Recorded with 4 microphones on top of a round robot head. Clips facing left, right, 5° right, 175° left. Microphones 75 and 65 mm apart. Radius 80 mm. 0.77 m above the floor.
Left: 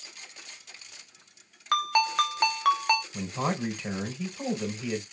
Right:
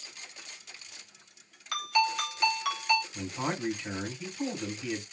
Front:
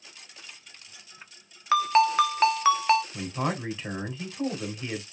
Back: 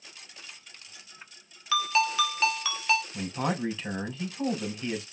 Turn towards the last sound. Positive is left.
turn(degrees=65)